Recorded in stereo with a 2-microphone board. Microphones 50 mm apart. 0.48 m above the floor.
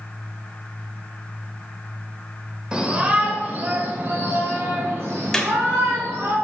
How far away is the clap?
About 1.9 m.